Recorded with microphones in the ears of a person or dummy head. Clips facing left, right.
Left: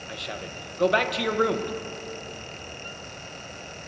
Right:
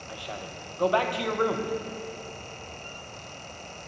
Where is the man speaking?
25° left (ahead or behind), 1.0 m.